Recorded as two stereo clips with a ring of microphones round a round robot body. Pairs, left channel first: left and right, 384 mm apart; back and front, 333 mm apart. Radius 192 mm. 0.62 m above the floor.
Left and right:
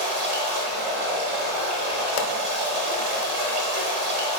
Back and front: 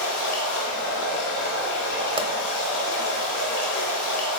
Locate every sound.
0.0 s running water: 120° right, 1.4 m
2.2 s a pop: 75° left, 0.6 m